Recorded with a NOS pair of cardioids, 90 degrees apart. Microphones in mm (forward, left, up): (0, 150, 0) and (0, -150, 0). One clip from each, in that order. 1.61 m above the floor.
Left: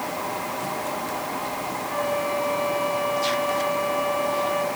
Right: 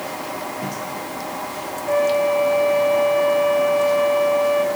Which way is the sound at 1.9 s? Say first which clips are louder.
Right 9 dB; 35° right.